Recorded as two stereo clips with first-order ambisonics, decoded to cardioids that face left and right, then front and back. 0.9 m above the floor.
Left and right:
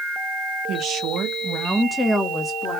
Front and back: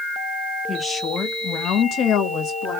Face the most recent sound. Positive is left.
turn(degrees=25)